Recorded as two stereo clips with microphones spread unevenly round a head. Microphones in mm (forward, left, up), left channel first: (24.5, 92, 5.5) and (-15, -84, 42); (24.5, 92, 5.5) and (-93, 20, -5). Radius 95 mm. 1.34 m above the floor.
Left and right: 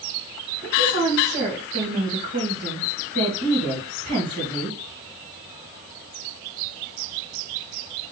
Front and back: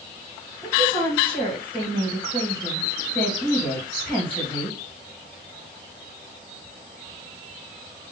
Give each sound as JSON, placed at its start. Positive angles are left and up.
{"t": 0.6, "sound": "a woman speaking", "azimuth_deg": -55, "distance_m": 1.9}